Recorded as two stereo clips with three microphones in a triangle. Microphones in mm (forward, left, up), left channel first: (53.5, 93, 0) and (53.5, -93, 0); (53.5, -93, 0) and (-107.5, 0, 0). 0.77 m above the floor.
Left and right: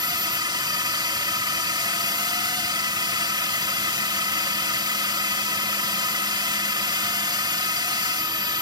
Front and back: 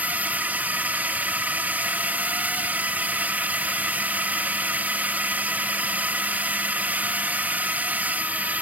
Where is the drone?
135° right.